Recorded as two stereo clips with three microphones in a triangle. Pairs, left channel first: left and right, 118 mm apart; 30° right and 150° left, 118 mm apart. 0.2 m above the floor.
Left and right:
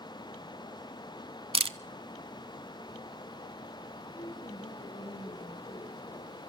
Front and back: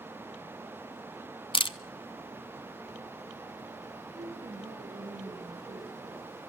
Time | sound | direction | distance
1.5 | a camera shutter | 65° right | 0.6 m
4.2 | a woman speaking | 125° left | 5 m